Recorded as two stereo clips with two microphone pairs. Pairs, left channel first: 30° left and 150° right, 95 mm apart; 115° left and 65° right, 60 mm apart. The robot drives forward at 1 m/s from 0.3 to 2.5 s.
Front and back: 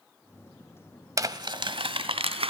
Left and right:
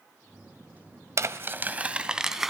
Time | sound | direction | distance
1.2 | crumpling | 95° right | 1.0 m